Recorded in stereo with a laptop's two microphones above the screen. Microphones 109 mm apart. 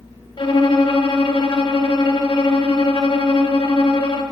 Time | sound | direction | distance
0.4 | a violin | 45° left (ahead or behind) | 0.8 m